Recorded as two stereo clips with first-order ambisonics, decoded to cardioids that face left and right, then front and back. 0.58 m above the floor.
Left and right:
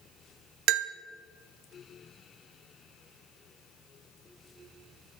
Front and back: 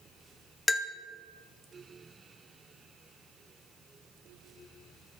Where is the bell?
85° right, 0.5 m.